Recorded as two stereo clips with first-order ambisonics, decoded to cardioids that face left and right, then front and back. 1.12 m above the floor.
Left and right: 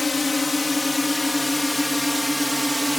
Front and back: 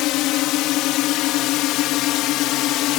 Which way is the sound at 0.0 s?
15° left.